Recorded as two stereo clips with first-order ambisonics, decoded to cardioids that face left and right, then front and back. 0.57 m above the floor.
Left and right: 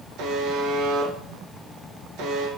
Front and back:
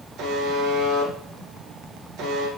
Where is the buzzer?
130° right, 1.8 m.